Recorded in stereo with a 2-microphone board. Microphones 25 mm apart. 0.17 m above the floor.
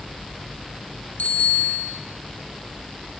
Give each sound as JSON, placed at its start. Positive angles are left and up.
{"t": 1.2, "sound": "a bicycle bell", "side_deg": 70, "distance_m": 3.0}